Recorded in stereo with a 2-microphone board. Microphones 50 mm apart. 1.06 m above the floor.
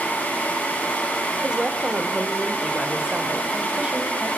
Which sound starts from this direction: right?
A woman speaking, at 1.4 s.